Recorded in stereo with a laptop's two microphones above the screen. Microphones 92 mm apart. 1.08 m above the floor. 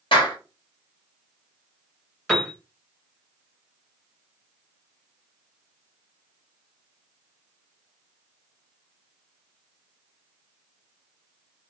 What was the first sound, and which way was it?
A clap, 65° left (ahead or behind).